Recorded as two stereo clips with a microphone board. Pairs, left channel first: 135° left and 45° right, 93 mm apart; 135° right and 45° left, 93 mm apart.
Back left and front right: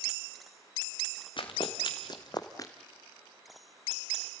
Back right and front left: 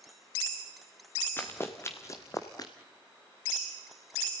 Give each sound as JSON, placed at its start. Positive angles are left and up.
{"t": 1.4, "sound": "running footsteps", "azimuth_deg": 160, "distance_m": 2.5}